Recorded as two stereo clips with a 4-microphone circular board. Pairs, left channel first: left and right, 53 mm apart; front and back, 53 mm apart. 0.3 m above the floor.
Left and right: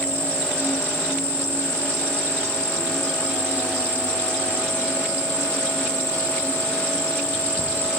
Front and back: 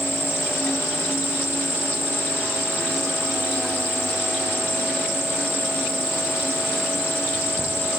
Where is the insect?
40° right, 1.3 m.